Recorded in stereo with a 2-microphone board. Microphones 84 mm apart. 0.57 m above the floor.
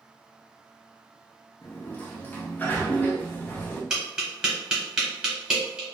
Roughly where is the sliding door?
Left.